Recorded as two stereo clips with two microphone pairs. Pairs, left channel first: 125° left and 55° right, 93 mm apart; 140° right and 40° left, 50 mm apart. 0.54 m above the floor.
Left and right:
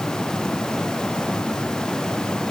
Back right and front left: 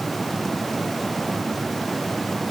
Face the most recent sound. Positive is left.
No sound to turn to.